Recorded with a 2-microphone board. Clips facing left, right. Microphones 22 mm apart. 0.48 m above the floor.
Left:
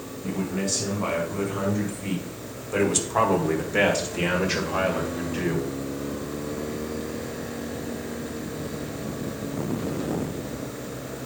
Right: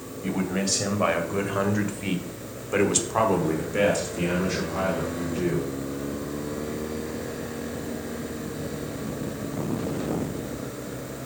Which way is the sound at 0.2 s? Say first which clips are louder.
Right 2 dB; 70° right (ahead or behind).